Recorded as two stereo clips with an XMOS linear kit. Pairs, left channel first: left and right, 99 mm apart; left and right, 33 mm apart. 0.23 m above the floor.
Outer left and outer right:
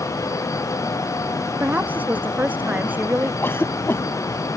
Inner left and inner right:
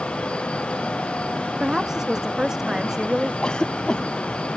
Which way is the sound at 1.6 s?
15° right (ahead or behind).